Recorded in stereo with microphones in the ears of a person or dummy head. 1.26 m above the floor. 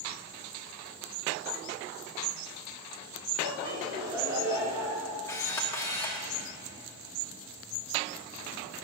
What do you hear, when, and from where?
3.4 s laughter: 25° right (ahead or behind), 1.5 m; by 5.1 s 20° right (ahead or behind), 2.5 m
5.3 s a camera shutter: 10° left (ahead or behind), 1.1 m